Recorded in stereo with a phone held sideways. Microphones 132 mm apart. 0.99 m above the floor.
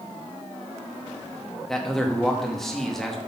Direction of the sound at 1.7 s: 5° left (ahead or behind).